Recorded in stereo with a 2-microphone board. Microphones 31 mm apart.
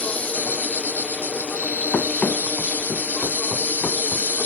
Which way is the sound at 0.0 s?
65° left (ahead or behind).